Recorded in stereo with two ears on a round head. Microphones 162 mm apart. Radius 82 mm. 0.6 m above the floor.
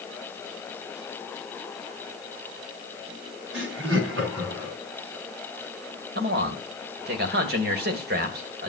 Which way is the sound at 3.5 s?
80° right.